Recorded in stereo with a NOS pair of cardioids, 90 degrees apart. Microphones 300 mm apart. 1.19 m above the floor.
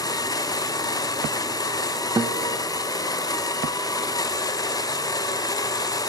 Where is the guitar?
15° right, 0.6 m.